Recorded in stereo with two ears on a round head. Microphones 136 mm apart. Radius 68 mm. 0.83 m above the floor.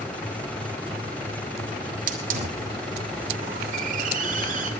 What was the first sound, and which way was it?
A hiss, 60° right (ahead or behind).